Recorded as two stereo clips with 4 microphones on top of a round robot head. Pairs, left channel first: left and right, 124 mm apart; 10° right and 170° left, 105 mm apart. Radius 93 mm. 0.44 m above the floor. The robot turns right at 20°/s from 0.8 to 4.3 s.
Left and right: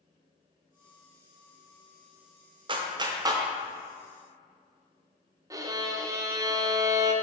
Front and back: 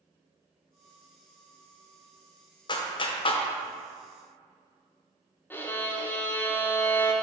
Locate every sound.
2.7 s a clap: 45° right, 0.8 m; by 3.4 s 30° right, 0.8 m
5.5 s a violin: 60° right, 0.9 m